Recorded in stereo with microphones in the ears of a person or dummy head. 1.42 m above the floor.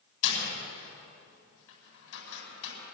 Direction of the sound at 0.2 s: 75° left (ahead or behind).